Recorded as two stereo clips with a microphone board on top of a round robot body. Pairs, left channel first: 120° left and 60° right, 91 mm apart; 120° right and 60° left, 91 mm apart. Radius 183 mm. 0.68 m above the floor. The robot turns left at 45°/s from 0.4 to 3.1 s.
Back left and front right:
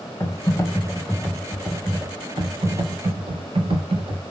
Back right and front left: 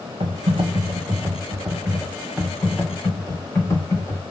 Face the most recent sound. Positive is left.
turn(degrees=-60)